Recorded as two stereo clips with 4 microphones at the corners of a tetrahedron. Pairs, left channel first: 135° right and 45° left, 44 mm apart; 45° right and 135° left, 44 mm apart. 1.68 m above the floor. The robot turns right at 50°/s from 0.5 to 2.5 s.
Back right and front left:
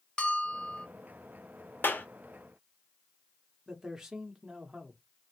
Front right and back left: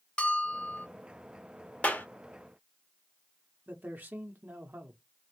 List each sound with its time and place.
0.2 s a bell: 80° right, 0.6 m; by 0.9 s 65° right, 0.6 m
1.8 s a clap: 105° right, 0.7 m; by 2.1 s 90° right, 0.7 m
3.7 s a man speaking: 115° left, 0.7 m